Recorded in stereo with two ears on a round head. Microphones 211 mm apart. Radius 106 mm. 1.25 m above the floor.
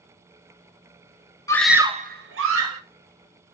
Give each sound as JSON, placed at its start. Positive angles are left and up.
{"t": 1.5, "sound": "a scream", "side_deg": 15, "distance_m": 1.0}